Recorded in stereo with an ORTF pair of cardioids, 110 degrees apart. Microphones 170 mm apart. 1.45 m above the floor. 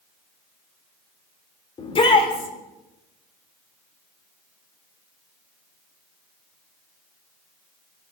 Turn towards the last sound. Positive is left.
turn(degrees=35)